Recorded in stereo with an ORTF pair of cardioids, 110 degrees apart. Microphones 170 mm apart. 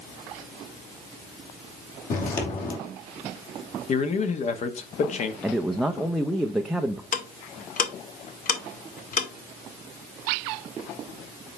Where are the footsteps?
55° left, 3 m.